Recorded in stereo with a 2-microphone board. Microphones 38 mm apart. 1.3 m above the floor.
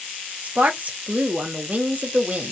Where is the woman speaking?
45° right (ahead or behind), 0.7 m.